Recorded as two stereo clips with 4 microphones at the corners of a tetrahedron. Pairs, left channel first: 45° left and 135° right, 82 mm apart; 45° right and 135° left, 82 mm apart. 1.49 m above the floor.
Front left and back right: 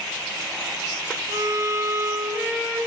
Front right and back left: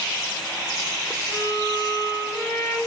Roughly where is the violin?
Right.